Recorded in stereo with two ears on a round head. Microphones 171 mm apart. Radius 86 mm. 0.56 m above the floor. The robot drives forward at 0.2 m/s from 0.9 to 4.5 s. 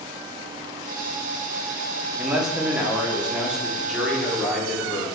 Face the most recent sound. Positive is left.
turn(degrees=-5)  # may be behind; listen again after turning